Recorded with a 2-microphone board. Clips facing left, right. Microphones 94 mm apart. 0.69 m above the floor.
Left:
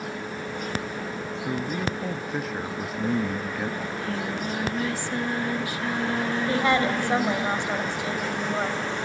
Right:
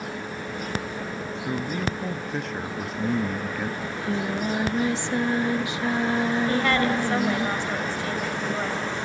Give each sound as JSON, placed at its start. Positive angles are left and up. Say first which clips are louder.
{"t": 1.4, "sound": "a man speaking", "louder": "even", "side_deg": 5, "distance_m": 0.8}
{"t": 3.8, "sound": "singing", "louder": "right 2 dB", "side_deg": -20, "distance_m": 0.8}
{"t": 6.5, "sound": "a woman speaking", "louder": "even", "side_deg": 15, "distance_m": 3.5}